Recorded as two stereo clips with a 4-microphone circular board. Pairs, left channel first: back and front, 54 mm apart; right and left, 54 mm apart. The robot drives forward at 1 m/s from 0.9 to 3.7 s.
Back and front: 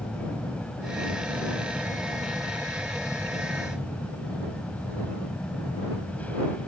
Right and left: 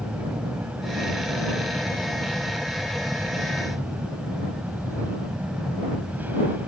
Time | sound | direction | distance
0.0 | an aircraft | 125° left | ?